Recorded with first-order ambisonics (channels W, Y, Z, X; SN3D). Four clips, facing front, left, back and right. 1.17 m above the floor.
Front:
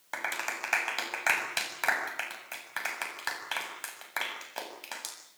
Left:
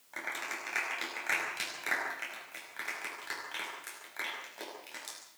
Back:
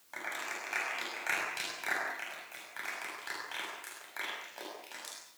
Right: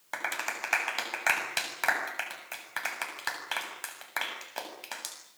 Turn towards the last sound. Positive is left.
turn(degrees=-50)